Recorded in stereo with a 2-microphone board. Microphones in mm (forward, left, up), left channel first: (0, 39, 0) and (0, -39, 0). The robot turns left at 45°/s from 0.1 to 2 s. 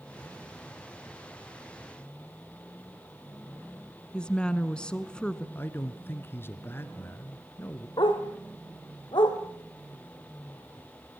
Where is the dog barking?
75° left (ahead or behind), 3.5 m.